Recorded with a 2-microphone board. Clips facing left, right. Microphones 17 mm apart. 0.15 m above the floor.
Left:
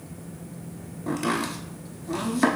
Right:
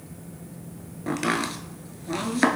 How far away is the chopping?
About 0.7 m.